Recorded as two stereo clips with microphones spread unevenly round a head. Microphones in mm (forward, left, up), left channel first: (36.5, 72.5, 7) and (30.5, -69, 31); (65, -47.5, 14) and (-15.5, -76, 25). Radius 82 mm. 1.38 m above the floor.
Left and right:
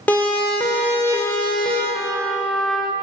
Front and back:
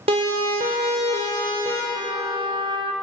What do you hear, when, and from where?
0.1 s a siren: 170° left, 3.5 m
1.9 s a trumpet: 175° right, 1.9 m